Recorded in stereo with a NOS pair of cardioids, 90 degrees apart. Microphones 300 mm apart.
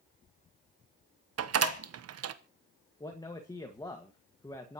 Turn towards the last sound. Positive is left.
turn(degrees=15)